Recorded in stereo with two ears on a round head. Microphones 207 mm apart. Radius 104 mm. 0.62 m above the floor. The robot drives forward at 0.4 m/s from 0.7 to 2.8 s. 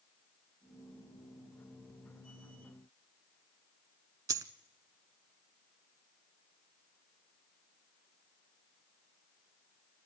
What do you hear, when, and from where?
4.3 s a dropped coin: 15° right (ahead or behind), 0.6 m